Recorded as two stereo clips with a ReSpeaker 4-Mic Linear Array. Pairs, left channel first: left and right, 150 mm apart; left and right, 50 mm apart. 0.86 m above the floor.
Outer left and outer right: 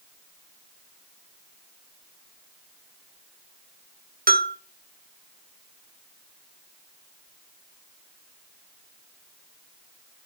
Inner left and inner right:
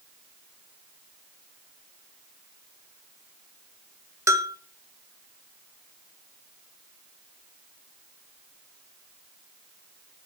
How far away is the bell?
About 1.4 m.